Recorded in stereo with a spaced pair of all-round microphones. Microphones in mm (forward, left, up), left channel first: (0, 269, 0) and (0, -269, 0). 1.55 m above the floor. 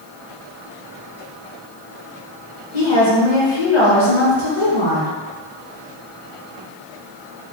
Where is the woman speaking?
60° left (ahead or behind), 1.1 m.